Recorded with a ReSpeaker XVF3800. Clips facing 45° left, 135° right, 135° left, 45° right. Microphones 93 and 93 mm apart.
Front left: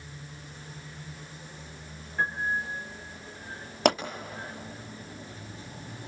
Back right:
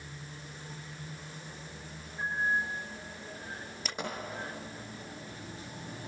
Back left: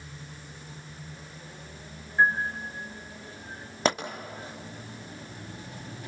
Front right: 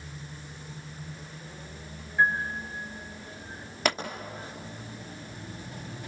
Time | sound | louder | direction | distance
2.2 | a piano | front left 2 dB, back left 1 dB | 75° left | 4 m
3.9 | a pop | front left 20 dB, back left 2 dB | 70° left | 2.5 m